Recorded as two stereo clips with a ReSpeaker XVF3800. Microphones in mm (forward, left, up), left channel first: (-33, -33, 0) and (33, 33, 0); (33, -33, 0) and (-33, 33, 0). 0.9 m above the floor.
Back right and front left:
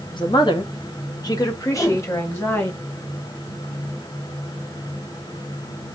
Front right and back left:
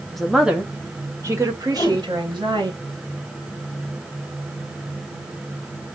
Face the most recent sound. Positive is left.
turn(degrees=-75)